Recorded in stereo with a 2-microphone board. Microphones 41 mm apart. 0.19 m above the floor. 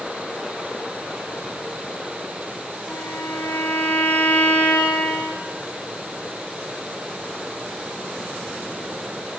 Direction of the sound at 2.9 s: 80° left.